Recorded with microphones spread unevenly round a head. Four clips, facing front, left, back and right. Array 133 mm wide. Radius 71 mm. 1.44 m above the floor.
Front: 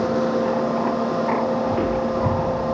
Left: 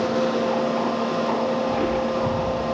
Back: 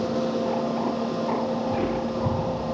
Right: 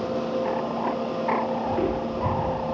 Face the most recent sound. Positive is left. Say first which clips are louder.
# left 3 dB, front 4 dB
turn(degrees=-10)